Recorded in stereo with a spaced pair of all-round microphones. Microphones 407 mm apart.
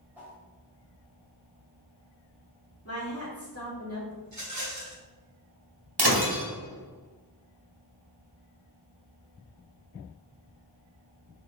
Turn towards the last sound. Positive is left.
turn(degrees=-70)  # may be behind; listen again after turning